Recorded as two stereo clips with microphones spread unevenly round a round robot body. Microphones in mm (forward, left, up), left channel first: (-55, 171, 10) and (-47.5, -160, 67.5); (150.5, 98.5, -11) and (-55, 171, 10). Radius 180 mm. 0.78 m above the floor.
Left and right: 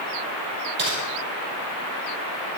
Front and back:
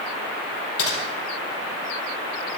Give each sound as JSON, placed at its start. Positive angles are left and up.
{"t": 0.8, "sound": "typing on a keyboard", "azimuth_deg": -30, "distance_m": 4.0}